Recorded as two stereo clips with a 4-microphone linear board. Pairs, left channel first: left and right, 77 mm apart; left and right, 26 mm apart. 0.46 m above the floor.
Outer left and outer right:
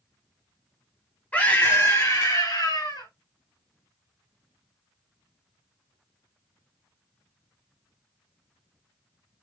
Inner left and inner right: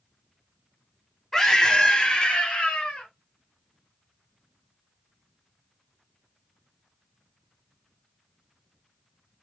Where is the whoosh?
I don't hear a whoosh.